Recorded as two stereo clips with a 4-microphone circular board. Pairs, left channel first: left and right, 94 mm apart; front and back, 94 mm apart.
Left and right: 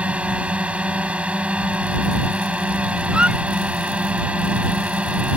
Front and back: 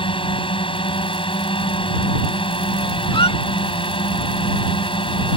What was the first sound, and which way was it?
A drone, 15° right.